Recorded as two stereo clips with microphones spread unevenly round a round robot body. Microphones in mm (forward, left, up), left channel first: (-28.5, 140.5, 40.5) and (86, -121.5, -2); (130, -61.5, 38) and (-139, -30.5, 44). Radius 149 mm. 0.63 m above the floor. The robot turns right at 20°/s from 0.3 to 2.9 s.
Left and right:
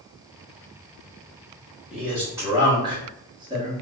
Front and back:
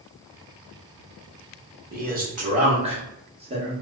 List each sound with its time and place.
1.9 s a man speaking: 145° right, 1.2 m; by 3.7 s 125° right, 1.2 m